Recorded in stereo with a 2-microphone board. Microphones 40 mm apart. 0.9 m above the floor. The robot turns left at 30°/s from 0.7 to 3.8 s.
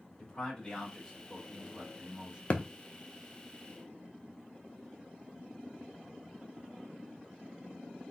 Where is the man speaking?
25° left, 2.5 m; by 2.4 s 25° right, 2.5 m.